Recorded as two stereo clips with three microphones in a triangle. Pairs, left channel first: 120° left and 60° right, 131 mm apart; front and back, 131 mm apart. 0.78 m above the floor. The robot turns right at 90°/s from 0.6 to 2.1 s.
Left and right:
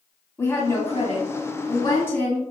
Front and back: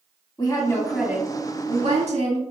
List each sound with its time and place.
0.4 s a woman speaking: 55° left, 1.6 m; by 2.4 s 170° right, 1.6 m